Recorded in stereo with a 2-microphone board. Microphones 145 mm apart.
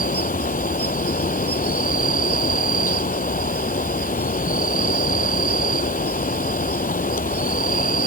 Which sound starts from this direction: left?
An insect, at 0.0 s.